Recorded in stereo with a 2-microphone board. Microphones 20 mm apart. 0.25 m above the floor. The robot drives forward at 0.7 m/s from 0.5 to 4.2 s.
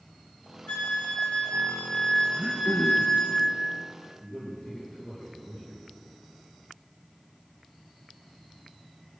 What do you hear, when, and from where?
0.7 s a flute: 65° left (ahead or behind), 1.6 m; by 3.4 s 30° left (ahead or behind), 3 m
2.4 s throat clearing: 30° right (ahead or behind), 1.0 m; by 3.1 s 20° right (ahead or behind), 1.5 m
4.2 s a man speaking: 30° left (ahead or behind), 4 m